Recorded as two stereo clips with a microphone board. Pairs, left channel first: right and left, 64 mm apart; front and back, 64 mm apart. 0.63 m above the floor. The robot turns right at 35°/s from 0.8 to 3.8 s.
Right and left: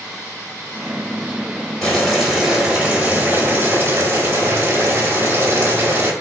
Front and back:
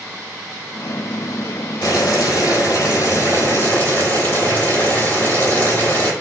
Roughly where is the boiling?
Ahead.